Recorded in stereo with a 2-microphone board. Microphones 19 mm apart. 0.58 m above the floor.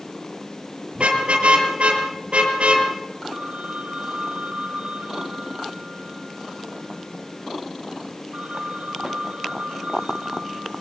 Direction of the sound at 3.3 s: 70° right (ahead or behind).